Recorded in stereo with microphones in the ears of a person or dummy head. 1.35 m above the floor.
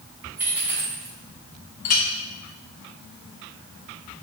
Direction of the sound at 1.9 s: 50° left (ahead or behind).